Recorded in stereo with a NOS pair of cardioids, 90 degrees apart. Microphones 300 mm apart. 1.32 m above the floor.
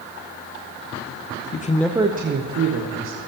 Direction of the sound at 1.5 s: 35° left.